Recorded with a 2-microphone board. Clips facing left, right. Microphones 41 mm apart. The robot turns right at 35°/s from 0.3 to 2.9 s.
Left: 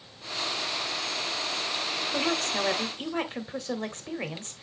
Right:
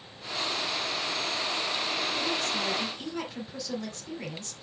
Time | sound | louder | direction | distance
2.1 | a woman speaking | left 2 dB | 60° left (ahead or behind) | 1.5 m